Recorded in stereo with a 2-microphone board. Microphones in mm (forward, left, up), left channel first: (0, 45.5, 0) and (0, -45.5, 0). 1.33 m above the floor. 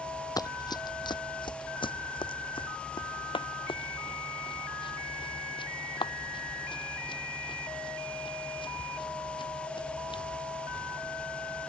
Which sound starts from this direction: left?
Running footsteps, at 0.4 s.